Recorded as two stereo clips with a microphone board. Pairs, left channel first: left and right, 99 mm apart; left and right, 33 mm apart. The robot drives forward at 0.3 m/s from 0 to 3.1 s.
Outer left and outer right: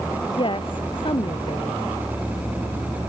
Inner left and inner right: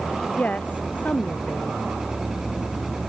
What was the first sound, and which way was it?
A woman speaking, 55° left (ahead or behind).